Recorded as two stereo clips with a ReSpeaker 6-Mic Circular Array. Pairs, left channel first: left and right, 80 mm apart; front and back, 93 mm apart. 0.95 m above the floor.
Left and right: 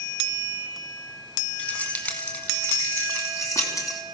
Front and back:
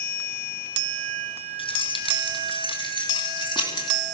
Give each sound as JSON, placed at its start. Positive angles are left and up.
{"t": 1.6, "sound": "keys jangling", "azimuth_deg": 20, "distance_m": 5.0}